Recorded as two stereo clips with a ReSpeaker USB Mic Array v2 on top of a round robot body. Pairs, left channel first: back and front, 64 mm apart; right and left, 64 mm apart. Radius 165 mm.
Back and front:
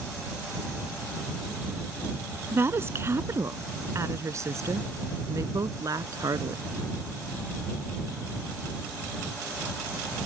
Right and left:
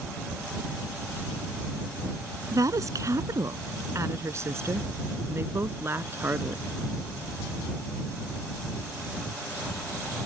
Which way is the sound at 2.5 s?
55° left.